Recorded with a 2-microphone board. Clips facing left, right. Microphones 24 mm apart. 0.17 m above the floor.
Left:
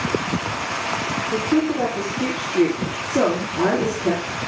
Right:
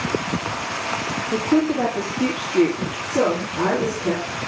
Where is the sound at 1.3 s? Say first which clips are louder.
Right 2 dB; 35° right (ahead or behind), 5.5 m.